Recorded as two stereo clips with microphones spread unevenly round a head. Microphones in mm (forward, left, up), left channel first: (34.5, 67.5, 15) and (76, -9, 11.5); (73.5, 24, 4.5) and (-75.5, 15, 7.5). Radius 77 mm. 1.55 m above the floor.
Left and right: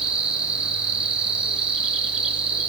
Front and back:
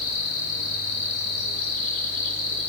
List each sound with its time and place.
0.0 s an insect: 15° left, 5 m